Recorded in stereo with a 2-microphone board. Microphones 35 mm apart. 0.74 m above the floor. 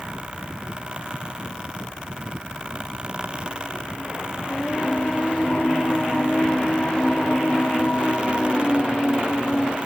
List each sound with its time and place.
4.5 s singing: 30° left (ahead or behind), 1.1 m